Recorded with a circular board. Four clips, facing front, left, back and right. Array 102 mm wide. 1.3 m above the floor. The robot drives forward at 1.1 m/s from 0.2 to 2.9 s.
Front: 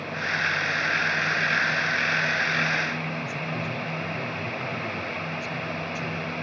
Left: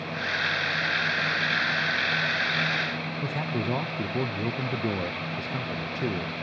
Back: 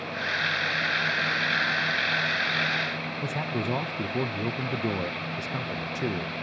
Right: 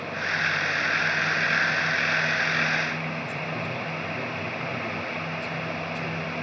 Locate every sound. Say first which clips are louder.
3.2 s a man speaking: left 2 dB, back 1 dB; 140° left, 1.3 m